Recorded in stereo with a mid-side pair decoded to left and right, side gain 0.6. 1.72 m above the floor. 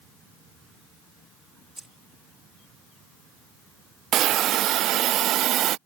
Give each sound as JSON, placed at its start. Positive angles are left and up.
{"t": 1.8, "sound": "keys jangling", "azimuth_deg": -5}
{"t": 4.1, "sound": "a hiss", "azimuth_deg": -55}